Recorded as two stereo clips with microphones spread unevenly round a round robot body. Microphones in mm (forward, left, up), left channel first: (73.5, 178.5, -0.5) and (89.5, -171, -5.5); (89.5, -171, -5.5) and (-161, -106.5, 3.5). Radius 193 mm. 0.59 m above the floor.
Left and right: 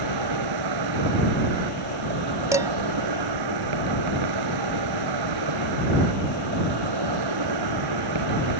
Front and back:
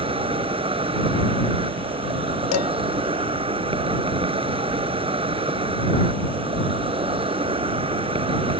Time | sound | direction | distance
0.0 | an insect | 125° right | ?
2.5 | dishes clattering | 5° right | ?